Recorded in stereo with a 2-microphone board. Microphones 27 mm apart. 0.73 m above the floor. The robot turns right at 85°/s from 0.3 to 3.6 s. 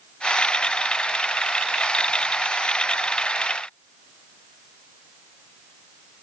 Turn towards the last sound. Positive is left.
No sound to turn to.